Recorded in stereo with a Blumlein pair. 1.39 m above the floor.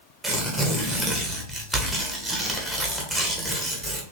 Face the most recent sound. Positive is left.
turn(degrees=0)